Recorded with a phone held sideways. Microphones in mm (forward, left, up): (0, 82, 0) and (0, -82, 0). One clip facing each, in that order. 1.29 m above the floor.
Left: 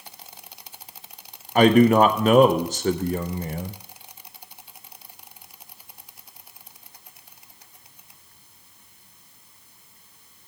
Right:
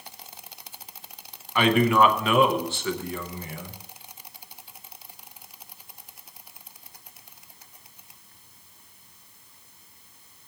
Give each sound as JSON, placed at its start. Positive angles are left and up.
{"t": 1.6, "sound": "a man speaking", "side_deg": 40, "distance_m": 0.5}